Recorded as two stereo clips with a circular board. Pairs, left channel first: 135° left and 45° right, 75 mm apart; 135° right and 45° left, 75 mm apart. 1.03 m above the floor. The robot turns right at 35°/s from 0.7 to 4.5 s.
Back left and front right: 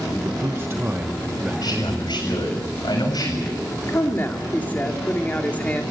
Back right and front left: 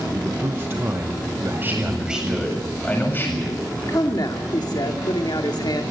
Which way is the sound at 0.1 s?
Straight ahead.